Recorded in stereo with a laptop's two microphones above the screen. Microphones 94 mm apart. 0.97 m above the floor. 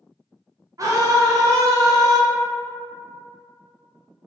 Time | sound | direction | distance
0.8 | a scream | 35° right (ahead or behind) | 0.6 m